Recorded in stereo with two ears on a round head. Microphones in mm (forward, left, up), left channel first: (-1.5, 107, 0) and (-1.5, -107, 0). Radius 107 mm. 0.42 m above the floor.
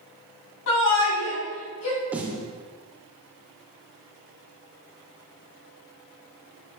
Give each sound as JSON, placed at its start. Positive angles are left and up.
{"t": 0.7, "sound": "a shout", "side_deg": 70, "distance_m": 3.0}
{"t": 2.1, "sound": "a snare drum", "side_deg": -5, "distance_m": 0.6}